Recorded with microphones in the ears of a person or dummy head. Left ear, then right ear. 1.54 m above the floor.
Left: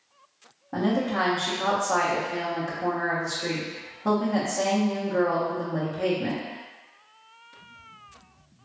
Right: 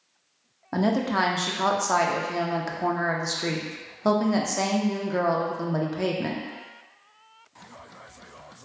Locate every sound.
0.7 s a woman speaking: 80° right, 0.7 m